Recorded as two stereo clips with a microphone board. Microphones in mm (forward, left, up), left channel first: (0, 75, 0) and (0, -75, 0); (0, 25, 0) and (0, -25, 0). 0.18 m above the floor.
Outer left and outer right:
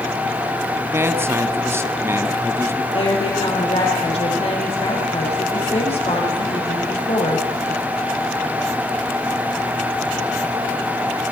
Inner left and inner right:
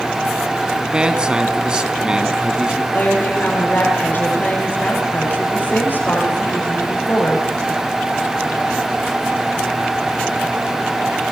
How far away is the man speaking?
About 1.3 m.